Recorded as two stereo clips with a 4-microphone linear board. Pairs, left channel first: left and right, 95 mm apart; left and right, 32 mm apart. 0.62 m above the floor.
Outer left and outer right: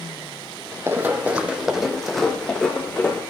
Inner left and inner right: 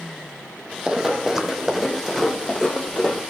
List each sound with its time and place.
0.9 s running footsteps: 25° right (ahead or behind), 1.2 m; by 3.2 s 15° left (ahead or behind), 2.0 m